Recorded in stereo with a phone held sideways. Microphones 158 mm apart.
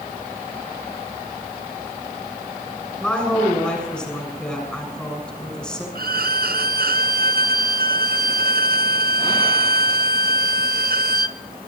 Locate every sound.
3.0 s a woman speaking: 5° left (ahead or behind), 7 m
6.0 s a violin: 75° right (ahead or behind), 0.5 m